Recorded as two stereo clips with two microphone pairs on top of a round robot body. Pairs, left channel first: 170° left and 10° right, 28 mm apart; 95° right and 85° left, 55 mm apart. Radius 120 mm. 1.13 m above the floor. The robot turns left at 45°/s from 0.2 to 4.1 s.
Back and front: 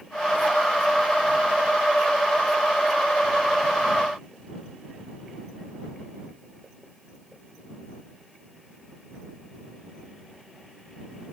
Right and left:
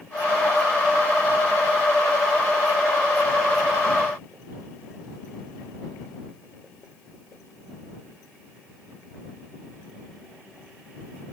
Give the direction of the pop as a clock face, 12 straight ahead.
No pop in this recording.